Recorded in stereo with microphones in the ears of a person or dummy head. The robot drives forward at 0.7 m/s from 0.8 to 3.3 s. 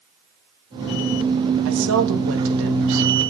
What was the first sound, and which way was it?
A woman speaking, 80° right.